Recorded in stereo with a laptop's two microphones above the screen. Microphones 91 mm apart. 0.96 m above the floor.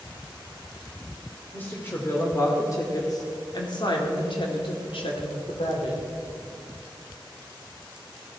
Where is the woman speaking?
20° left (ahead or behind), 2.5 m; by 6.0 s 80° left, 2.5 m.